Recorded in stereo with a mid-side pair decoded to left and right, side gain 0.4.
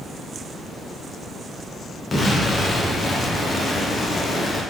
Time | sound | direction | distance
2.1 | an explosion | 35° left | 0.7 m